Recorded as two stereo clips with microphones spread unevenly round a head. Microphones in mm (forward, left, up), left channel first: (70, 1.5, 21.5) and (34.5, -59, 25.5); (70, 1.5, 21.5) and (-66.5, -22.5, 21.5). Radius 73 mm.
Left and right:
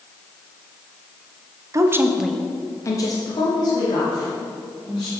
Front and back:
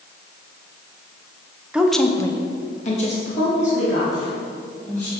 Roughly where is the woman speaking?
Right.